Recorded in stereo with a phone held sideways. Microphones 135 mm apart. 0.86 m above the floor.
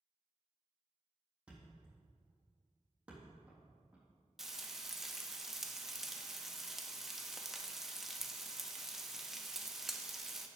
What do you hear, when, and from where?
1.5 s a thud: 10° right (ahead or behind), 3.5 m
4.4 s frying: 5° right (ahead or behind), 0.9 m